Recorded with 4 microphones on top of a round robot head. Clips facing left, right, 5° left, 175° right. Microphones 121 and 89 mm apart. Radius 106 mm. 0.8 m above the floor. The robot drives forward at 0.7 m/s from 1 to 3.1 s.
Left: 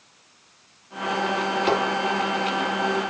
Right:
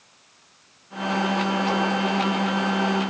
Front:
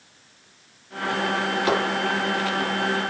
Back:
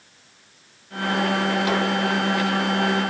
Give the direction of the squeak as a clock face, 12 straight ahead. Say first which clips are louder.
Left 7 dB, front 4 dB; 10 o'clock.